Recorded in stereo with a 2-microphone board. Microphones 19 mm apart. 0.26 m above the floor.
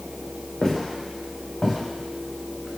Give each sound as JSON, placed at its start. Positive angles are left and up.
{"t": 0.6, "sound": "footsteps", "side_deg": 30, "distance_m": 2.5}